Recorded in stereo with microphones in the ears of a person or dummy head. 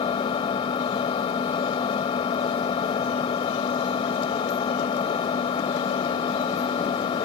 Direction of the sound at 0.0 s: 35° left (ahead or behind).